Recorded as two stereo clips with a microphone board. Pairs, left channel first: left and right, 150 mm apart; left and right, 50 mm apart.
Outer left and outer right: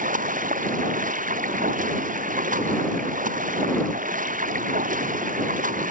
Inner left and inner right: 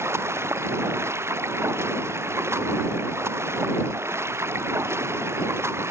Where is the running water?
65° right (ahead or behind).